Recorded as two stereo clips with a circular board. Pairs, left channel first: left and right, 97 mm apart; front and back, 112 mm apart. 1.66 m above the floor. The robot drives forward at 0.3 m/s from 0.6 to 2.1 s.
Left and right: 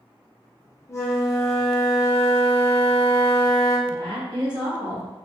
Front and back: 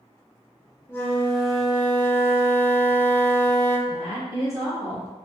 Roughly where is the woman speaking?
Behind right.